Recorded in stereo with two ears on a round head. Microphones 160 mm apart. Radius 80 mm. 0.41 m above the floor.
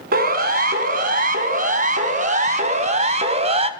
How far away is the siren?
About 4 m.